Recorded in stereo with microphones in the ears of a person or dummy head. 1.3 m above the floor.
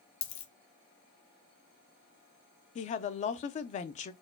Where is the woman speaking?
40° left (ahead or behind), 0.5 m.